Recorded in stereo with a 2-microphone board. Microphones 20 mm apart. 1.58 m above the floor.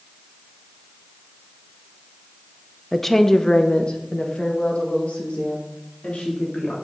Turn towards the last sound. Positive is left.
turn(degrees=65)  # may be behind; listen again after turning